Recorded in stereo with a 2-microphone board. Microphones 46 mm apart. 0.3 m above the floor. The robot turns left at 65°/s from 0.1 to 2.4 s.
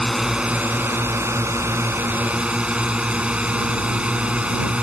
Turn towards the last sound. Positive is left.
turn(degrees=-150)